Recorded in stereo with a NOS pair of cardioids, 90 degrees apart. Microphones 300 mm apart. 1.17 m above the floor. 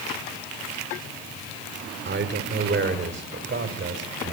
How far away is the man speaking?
About 3.5 m.